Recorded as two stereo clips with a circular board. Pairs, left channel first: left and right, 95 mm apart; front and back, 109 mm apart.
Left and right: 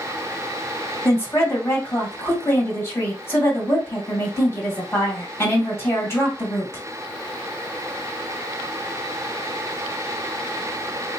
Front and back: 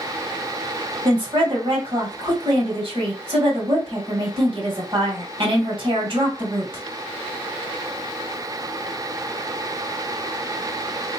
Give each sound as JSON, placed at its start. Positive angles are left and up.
{"t": 1.1, "sound": "a woman speaking", "azimuth_deg": 150, "distance_m": 1.8}